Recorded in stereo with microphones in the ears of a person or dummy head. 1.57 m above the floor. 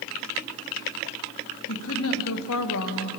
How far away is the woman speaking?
About 1.2 m.